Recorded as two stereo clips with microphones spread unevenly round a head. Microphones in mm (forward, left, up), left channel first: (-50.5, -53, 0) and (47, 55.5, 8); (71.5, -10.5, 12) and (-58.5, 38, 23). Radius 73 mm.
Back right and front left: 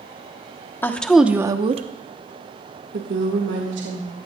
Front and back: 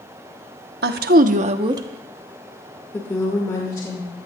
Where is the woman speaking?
150° left, 0.9 m; by 4.1 s 40° left, 2 m.